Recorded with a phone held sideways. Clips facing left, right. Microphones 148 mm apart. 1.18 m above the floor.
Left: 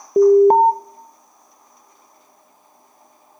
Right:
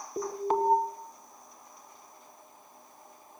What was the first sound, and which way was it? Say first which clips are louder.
An alarm: left 19 dB; 50° left (ahead or behind).